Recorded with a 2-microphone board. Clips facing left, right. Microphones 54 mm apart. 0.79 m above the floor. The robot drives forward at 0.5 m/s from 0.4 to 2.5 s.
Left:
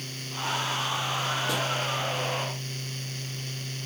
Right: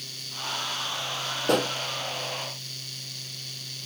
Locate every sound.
1.4 s a pop: 60° right (ahead or behind)